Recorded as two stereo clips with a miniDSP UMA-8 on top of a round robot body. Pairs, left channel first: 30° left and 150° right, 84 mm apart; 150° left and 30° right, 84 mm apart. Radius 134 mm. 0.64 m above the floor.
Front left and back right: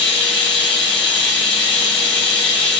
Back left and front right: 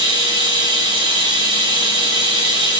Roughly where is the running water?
Ahead right.